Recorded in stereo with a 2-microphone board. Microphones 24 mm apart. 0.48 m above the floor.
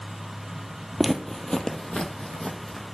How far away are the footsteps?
About 0.5 m.